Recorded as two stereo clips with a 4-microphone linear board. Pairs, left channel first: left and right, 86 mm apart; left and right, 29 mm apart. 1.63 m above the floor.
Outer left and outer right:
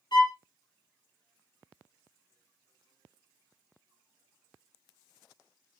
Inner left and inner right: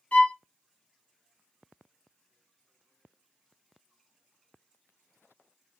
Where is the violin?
60° left (ahead or behind), 1.0 m.